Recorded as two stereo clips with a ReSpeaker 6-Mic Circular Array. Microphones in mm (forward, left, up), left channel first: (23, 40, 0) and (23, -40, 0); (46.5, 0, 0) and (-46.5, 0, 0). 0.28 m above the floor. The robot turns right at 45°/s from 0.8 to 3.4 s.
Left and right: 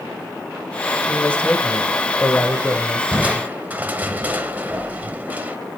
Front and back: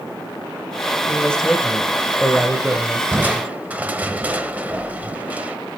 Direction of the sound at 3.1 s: 140° right.